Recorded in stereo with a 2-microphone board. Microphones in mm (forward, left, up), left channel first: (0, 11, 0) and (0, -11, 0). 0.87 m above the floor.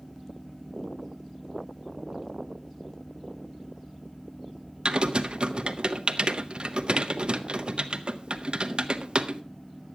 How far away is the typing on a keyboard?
About 0.9 m.